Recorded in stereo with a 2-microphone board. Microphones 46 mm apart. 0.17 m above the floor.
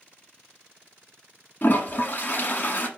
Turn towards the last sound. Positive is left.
turn(degrees=45)  # may be behind; listen again after turning